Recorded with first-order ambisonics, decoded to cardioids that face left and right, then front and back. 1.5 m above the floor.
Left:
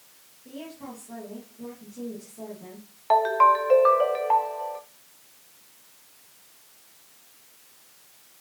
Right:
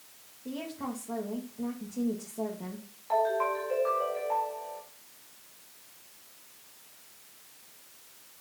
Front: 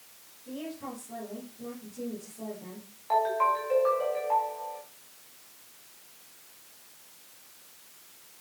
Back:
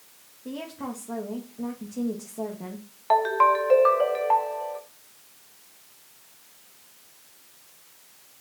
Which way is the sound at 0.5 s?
155° right.